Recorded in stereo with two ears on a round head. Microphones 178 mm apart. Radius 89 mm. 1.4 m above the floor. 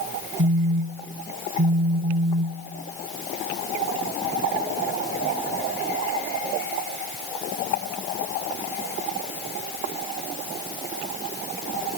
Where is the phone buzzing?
55° right (ahead or behind), 0.7 m.